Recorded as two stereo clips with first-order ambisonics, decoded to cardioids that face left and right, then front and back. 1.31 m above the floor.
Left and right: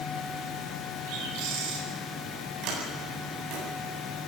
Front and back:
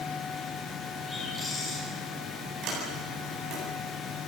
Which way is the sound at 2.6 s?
130° right.